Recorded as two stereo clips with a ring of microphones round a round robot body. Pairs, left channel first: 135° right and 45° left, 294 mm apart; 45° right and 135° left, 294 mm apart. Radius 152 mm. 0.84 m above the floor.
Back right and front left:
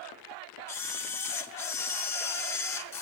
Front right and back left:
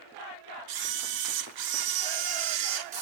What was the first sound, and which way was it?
A camera shutter, 145° left.